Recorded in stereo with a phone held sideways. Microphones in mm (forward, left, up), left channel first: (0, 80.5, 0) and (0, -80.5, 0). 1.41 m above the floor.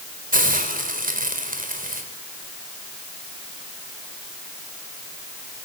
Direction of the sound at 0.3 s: 60° right (ahead or behind).